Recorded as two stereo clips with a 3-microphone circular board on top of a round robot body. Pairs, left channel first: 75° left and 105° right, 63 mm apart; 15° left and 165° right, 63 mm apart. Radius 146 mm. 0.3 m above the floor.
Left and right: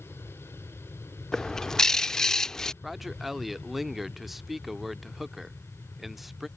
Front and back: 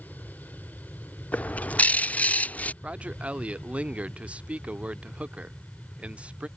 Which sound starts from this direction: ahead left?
An aircraft, at 0.0 s.